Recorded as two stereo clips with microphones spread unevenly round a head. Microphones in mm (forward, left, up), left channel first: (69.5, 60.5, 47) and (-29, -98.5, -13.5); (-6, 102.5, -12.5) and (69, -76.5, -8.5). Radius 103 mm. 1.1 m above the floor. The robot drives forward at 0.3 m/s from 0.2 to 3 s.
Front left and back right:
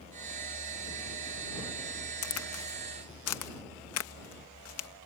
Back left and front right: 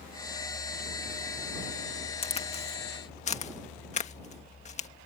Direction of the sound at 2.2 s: 55° left.